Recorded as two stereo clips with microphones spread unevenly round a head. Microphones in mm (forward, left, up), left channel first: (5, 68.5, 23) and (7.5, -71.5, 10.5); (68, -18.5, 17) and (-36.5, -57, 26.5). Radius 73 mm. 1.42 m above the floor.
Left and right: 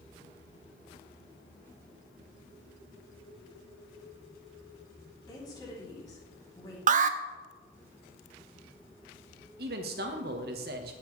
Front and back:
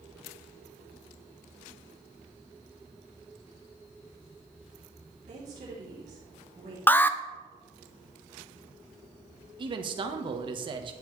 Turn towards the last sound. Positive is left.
turn(degrees=-115)